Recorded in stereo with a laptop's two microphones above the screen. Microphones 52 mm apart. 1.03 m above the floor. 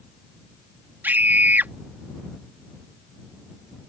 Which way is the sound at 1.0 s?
40° right (ahead or behind).